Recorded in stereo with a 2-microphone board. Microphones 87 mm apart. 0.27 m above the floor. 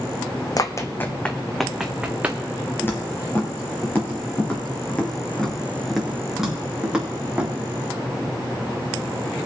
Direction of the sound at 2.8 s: 25° left (ahead or behind).